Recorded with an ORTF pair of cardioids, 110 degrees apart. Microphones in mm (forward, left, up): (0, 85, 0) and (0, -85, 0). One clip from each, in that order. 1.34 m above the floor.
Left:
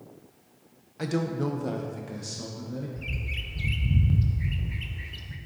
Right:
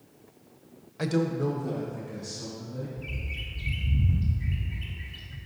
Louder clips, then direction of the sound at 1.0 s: Right 2 dB; 10° right.